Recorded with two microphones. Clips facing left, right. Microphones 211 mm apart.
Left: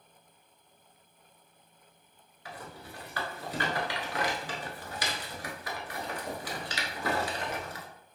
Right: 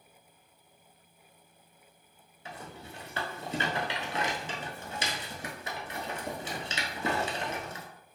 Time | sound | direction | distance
2.5 | a rattle | 25° right (ahead or behind) | 0.6 m